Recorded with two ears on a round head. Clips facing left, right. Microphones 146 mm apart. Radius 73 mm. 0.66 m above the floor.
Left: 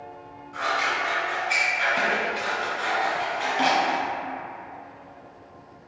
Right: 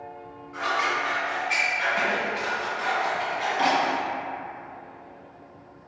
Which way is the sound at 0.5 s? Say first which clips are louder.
Even; 35° left (ahead or behind).